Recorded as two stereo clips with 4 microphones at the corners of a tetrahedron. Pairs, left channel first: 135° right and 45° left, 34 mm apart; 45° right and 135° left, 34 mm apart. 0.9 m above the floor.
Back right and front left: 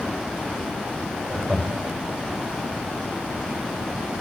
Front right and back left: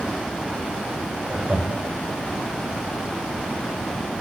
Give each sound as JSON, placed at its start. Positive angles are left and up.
{"t": 1.3, "sound": "laughter", "azimuth_deg": 105, "distance_m": 5.5}